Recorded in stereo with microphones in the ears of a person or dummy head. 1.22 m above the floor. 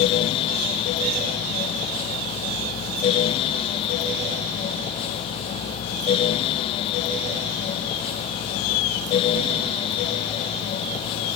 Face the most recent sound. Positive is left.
No sound to turn to.